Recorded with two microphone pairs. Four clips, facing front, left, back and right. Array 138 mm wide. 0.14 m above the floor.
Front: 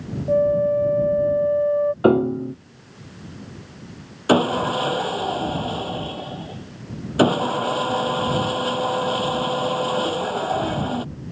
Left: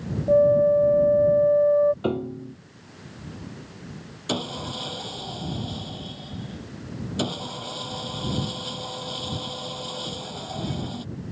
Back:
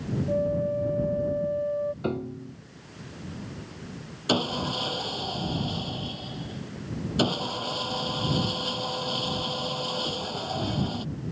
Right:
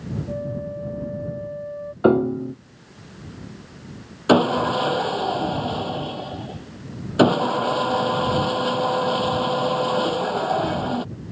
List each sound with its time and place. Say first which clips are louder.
0.3 s a flute: left 16 dB, front 9 dB; 65° left
2.0 s a piano: right 10 dB, front 14 dB; 40° right
4.3 s sawing: right 14 dB, front 9 dB; 55° right